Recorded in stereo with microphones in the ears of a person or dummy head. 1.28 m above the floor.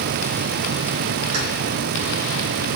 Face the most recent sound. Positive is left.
turn(degrees=-55)  # may be behind; listen again after turning